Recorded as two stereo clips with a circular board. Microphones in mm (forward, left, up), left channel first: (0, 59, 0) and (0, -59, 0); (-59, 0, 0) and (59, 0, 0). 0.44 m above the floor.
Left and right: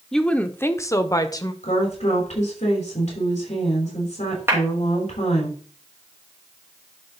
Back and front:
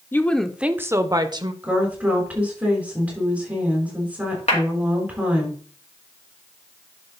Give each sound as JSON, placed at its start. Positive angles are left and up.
{"t": 0.1, "sound": "a woman speaking", "azimuth_deg": 170, "distance_m": 0.7}
{"t": 1.6, "sound": "a woman speaking", "azimuth_deg": 80, "distance_m": 4.5}
{"t": 4.5, "sound": "a clap", "azimuth_deg": -160, "distance_m": 3.0}